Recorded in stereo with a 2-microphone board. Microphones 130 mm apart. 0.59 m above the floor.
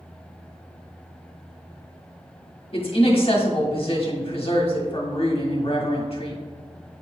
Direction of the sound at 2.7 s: 50° left (ahead or behind).